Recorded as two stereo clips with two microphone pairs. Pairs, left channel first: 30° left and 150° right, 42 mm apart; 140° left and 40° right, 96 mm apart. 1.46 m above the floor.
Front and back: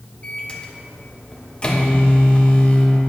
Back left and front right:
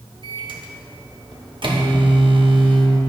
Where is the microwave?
25° right, 1.0 m.